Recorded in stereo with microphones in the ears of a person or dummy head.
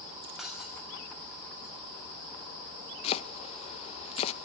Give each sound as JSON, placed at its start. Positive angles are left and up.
{"t": 0.4, "sound": "breaking glass", "side_deg": -5, "distance_m": 5.0}
{"t": 3.0, "sound": "chopping", "side_deg": 40, "distance_m": 0.7}